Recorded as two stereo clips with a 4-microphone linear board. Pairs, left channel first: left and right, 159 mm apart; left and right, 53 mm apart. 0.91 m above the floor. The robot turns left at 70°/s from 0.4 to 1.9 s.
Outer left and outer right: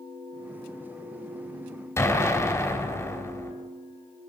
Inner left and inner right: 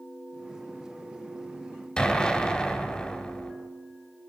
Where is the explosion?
15° left (ahead or behind), 3 m.